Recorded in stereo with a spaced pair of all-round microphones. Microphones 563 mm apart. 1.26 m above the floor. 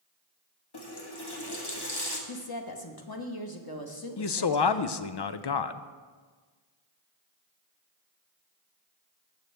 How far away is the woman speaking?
About 1.0 m.